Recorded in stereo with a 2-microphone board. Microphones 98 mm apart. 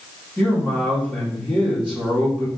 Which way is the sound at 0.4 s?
15° left (ahead or behind).